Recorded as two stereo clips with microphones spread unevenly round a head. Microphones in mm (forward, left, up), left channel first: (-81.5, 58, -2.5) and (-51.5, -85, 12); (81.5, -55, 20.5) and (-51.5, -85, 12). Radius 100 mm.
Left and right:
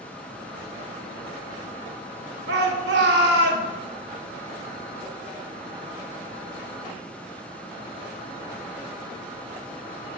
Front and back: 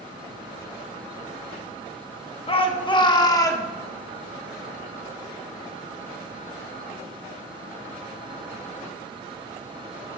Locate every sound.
2.5 s a shout: 35° right, 1.9 m; by 3.7 s 55° right, 1.7 m